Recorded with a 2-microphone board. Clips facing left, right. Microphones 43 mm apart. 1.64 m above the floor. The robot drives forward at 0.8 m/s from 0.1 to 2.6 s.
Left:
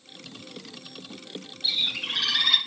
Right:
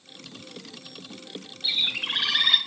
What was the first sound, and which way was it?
A bird, 35° right (ahead or behind).